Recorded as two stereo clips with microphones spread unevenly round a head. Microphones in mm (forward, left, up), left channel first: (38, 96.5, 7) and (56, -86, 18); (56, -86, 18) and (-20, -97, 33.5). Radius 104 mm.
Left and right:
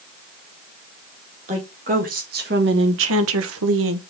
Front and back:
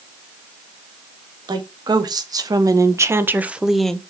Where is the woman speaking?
145° right, 2.5 m; by 4.0 s 70° right, 1.0 m.